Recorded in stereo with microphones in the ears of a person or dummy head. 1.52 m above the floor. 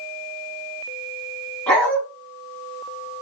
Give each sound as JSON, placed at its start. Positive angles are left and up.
{"t": 1.7, "sound": "a dog barking", "side_deg": 5, "distance_m": 1.9}